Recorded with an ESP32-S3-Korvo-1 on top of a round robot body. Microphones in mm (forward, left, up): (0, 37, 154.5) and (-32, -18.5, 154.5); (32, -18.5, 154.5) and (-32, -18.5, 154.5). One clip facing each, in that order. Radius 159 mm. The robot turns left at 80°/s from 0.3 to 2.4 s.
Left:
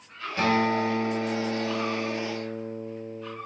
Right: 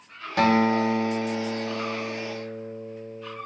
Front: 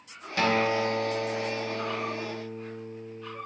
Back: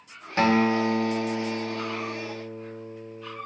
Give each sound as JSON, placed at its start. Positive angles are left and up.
{"t": 0.4, "sound": "a guitar", "azimuth_deg": -120, "distance_m": 1.1}